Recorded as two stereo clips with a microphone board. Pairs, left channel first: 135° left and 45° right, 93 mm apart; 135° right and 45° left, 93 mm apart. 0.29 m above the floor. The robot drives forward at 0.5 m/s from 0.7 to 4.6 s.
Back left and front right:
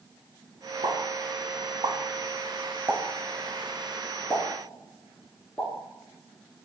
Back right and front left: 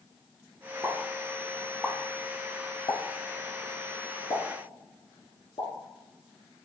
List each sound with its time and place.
0.8 s a pop: 30° right, 1.1 m; by 5.7 s 155° right, 1.2 m